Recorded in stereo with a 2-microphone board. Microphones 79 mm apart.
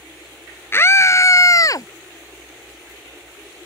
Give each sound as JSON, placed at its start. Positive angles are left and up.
{"t": 0.7, "sound": "a scream", "side_deg": 30}